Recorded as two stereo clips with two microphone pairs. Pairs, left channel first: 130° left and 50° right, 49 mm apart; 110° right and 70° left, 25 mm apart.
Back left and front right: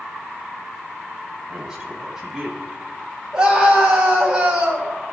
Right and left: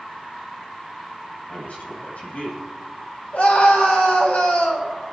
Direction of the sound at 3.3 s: 120° right.